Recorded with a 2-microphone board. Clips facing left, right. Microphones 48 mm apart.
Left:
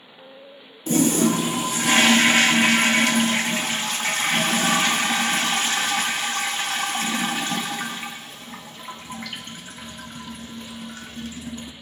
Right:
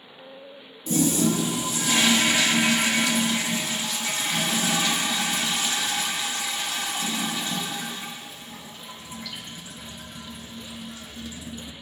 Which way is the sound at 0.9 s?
55° left (ahead or behind).